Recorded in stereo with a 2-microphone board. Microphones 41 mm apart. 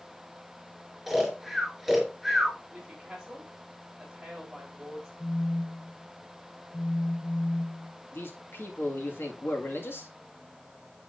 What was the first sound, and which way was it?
Snoring, 5° right (ahead or behind).